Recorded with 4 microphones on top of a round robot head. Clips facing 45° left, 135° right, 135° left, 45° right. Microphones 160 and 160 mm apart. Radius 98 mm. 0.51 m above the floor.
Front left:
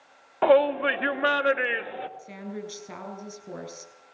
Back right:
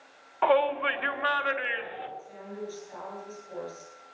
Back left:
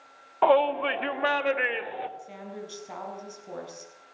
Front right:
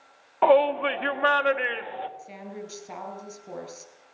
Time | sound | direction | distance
0.4 | a shout | 40° left | 1.7 m
2.2 | a woman speaking | 40° left | 6 m